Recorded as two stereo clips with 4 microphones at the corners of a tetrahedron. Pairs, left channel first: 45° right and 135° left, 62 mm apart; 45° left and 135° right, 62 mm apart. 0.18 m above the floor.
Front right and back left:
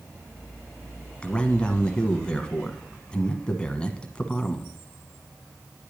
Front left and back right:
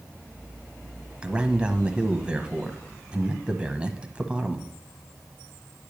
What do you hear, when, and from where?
1.2 s a man speaking: 90° right, 1.1 m